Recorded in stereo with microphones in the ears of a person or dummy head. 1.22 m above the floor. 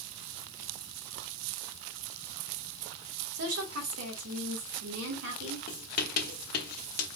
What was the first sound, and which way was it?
A woman speaking, 75° right (ahead or behind).